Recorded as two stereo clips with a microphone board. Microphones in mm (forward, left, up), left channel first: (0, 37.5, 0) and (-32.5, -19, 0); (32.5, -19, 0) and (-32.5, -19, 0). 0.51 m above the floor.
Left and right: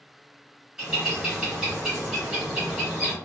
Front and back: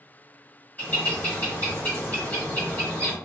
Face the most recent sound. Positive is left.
turn(degrees=-35)